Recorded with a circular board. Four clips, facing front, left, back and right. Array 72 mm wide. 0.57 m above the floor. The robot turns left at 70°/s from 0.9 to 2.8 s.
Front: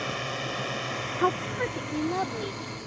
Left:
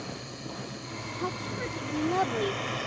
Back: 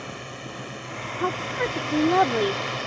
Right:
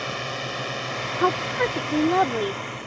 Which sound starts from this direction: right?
A woman speaking, at 1.2 s.